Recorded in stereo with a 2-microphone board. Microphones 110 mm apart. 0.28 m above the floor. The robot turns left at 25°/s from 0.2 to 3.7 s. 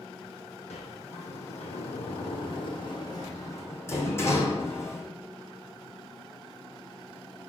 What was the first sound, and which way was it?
A sliding door, 80° left.